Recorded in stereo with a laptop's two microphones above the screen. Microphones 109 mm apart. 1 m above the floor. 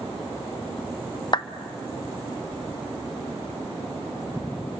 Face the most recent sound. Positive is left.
turn(degrees=45)  # may be behind; listen again after turning